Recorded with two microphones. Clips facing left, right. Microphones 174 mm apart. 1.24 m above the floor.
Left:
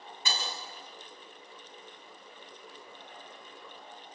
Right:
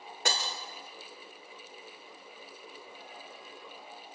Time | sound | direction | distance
0.2 | breaking glass | 80° right | 2.5 m